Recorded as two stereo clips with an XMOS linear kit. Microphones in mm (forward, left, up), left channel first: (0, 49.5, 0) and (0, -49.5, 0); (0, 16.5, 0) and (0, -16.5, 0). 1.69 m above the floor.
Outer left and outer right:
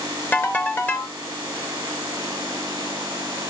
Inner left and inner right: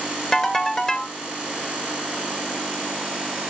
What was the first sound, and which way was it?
A ringtone, 20° left (ahead or behind).